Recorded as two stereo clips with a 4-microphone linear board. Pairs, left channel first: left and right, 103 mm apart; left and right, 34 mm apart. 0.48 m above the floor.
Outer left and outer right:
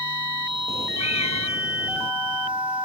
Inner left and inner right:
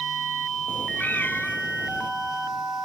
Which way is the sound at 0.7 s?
80° left.